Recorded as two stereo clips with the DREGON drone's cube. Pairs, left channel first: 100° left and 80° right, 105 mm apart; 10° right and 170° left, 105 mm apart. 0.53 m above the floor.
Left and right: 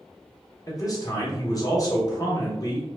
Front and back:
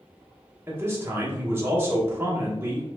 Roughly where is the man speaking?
Behind left.